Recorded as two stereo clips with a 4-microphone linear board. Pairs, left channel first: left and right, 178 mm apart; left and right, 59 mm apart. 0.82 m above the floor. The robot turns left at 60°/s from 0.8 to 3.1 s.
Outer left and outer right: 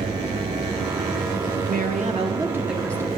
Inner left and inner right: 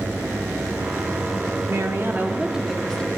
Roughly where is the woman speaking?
Behind right.